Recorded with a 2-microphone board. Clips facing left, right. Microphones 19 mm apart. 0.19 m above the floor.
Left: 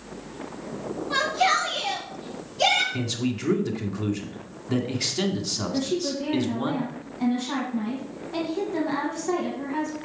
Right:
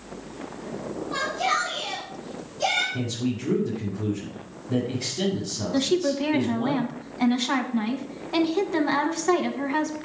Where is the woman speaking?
35° right (ahead or behind), 1.4 m.